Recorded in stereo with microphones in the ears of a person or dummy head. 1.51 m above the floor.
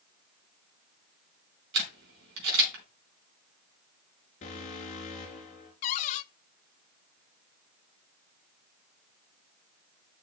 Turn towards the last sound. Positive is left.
turn(degrees=35)  # may be behind; listen again after turning